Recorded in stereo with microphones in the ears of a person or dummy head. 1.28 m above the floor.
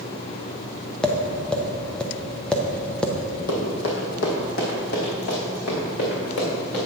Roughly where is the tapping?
Centre.